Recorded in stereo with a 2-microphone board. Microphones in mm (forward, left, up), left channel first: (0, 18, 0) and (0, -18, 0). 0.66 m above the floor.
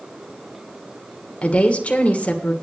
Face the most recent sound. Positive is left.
turn(degrees=35)  # may be behind; listen again after turning